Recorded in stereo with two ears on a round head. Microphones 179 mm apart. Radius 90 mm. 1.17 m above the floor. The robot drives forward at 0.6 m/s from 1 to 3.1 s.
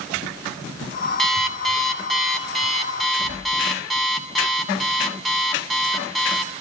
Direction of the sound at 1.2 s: Centre (ahead or behind).